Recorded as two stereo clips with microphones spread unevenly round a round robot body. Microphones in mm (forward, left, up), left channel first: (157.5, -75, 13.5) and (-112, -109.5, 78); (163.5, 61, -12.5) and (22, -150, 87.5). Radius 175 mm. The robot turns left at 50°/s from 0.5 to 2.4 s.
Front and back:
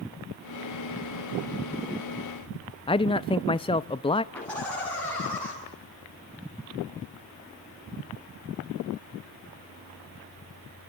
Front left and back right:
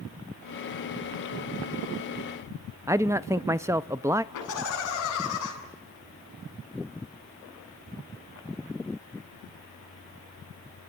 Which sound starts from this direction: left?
Laughter, at 4.3 s.